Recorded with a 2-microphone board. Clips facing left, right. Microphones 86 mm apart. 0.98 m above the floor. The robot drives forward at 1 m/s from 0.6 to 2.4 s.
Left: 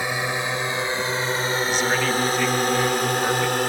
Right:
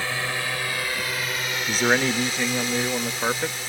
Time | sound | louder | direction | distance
0.0 | a drone | left 3 dB | 15° left (ahead or behind) | ?
1.7 | a man speaking | right 4 dB | 45° right (ahead or behind) | ?